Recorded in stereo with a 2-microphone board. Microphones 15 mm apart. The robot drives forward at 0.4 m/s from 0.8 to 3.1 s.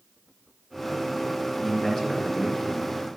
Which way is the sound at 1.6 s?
45° left (ahead or behind).